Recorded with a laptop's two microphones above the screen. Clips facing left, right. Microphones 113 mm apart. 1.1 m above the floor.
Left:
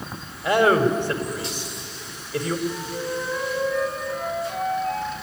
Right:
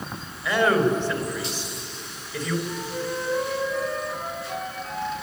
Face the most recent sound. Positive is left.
turn(degrees=55)  # may be behind; listen again after turning